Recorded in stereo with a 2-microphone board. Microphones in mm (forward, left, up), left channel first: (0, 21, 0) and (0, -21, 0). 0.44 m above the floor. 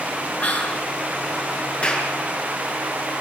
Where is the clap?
30° left (ahead or behind), 5.5 m.